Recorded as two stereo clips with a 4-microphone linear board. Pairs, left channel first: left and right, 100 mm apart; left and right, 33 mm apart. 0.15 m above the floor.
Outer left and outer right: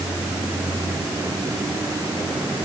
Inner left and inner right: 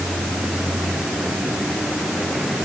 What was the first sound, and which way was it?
Only background noise.